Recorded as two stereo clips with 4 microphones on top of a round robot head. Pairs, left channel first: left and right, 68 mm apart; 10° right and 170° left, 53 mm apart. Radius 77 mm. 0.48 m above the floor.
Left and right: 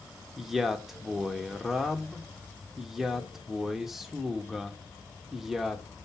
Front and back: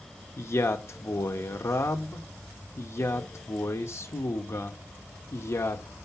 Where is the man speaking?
5° right, 1.1 m.